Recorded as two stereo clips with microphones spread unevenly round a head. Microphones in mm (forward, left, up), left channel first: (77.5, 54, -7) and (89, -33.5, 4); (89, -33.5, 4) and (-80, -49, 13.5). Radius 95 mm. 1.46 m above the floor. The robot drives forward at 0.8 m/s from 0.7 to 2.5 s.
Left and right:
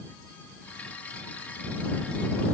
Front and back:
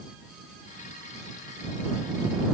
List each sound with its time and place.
Only background noise.